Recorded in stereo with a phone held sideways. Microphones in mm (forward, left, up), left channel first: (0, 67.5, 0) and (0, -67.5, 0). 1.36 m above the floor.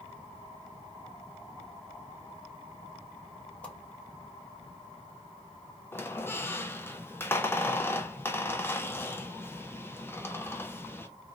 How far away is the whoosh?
About 0.8 m.